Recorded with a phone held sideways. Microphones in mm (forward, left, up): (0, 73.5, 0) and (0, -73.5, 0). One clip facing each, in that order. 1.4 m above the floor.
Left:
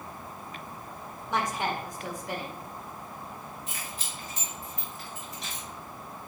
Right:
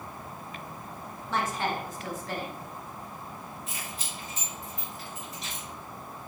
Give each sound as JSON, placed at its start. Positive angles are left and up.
{"t": 1.3, "sound": "a woman speaking", "side_deg": 15, "distance_m": 1.2}
{"t": 3.7, "sound": "keys jangling", "side_deg": 0, "distance_m": 2.0}